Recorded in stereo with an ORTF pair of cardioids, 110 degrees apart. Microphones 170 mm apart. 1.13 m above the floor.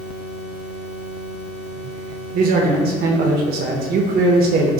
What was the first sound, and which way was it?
A man speaking, 65° right.